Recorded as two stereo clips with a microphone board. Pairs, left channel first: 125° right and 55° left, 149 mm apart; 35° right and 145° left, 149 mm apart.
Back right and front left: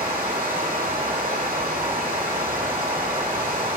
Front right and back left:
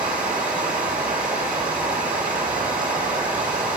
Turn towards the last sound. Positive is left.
turn(degrees=65)